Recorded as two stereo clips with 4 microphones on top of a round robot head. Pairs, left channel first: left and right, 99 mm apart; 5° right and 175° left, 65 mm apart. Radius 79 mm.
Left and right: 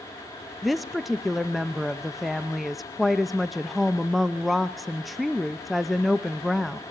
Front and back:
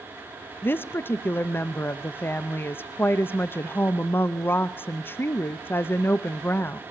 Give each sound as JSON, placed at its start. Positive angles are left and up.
{"t": 0.6, "sound": "a woman speaking", "azimuth_deg": 0, "distance_m": 0.5}